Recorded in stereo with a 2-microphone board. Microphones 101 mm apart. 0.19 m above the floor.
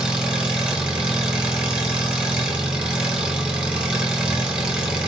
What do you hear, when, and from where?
0.0 s an engine running: 10° right (ahead or behind), 1.5 m